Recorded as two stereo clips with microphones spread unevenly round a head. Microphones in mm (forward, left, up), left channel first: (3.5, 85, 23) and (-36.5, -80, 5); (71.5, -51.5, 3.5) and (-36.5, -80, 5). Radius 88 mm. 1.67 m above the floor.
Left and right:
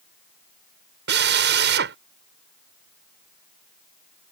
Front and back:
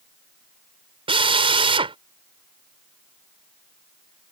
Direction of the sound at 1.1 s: 125° right.